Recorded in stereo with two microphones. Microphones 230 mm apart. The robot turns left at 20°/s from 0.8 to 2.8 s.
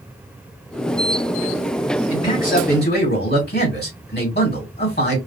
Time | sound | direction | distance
2.1 | a man speaking | 30° left (ahead or behind) | 2 m